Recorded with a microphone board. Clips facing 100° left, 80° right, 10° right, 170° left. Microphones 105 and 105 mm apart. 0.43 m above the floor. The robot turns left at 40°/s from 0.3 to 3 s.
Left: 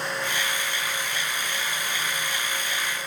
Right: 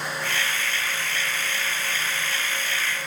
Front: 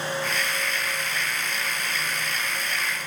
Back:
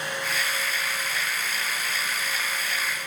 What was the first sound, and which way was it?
Only background noise.